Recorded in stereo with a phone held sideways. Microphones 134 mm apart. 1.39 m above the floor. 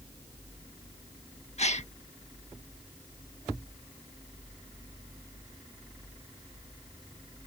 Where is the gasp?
55° left (ahead or behind).